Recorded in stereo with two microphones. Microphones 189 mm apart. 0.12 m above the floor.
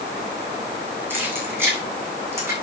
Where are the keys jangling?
10° right (ahead or behind), 5 m; by 2.5 s 15° right (ahead or behind), 5.5 m.